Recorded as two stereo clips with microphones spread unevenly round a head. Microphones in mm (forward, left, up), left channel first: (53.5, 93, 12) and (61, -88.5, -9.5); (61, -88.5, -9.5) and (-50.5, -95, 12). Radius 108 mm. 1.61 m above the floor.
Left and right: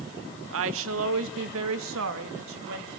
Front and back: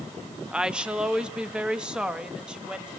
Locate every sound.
0.5 s a woman speaking: 95° right, 1.9 m